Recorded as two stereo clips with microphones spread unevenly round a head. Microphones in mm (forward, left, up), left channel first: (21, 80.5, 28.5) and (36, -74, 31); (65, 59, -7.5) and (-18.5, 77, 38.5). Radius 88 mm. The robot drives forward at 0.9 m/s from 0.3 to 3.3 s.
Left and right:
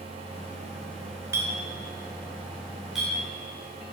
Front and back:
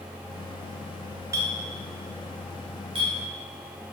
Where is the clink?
160° right, 1.0 m; by 3.1 s 170° right, 2.5 m.